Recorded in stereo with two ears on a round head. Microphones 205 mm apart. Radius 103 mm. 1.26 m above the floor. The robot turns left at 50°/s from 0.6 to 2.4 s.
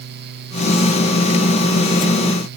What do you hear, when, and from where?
Only background noise.